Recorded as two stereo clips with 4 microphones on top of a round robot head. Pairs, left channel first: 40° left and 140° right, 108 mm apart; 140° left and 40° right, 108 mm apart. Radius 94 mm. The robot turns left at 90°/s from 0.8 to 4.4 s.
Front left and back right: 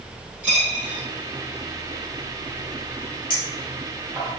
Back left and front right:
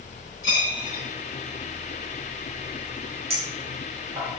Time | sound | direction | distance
0.4 | a dropped coin | 155° left | 0.8 m
3.3 | a clink | 5° right | 0.8 m